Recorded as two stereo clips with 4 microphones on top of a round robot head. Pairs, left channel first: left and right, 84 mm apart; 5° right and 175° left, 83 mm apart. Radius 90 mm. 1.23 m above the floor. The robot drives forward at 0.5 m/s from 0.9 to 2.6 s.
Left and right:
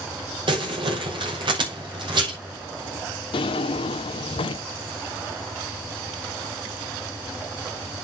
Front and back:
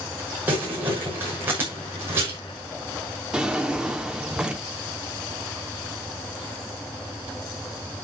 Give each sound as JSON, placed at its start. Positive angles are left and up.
{"t": 0.5, "sound": "crumpling", "azimuth_deg": -110, "distance_m": 6.0}
{"t": 3.3, "sound": "a drawer", "azimuth_deg": 100, "distance_m": 1.3}